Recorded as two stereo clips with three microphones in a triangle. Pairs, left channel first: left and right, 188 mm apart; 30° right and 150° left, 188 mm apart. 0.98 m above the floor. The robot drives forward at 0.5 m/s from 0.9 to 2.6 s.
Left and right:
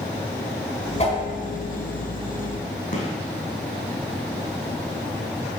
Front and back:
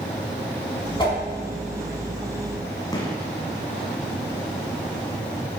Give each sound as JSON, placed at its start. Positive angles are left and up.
{"t": 1.0, "sound": "a whoosh", "azimuth_deg": 35, "distance_m": 4.5}
{"t": 2.9, "sound": "a gunshot", "azimuth_deg": 40, "distance_m": 3.5}